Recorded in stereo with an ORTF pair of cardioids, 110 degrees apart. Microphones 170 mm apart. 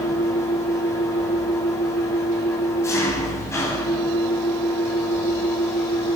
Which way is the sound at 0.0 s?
15° left.